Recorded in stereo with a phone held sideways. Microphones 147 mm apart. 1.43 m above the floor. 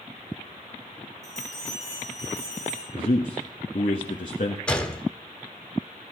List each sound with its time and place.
1.2 s a bell: 45° right (ahead or behind), 5 m
2.9 s a man speaking: 55° left (ahead or behind), 1.5 m
4.7 s a gunshot: 5° left (ahead or behind), 1.1 m